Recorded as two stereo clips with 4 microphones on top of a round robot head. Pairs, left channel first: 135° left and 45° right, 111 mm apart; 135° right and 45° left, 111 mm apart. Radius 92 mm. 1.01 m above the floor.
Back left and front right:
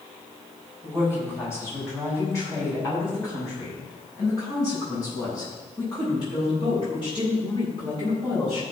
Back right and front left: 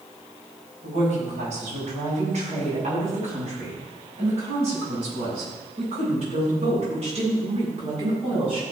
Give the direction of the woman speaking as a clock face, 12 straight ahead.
10 o'clock.